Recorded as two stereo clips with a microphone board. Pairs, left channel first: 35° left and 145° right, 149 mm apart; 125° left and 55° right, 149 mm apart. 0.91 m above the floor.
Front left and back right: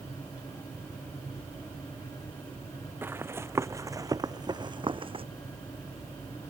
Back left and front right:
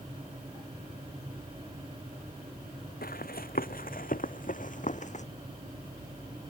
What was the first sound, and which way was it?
Running footsteps, 140° left.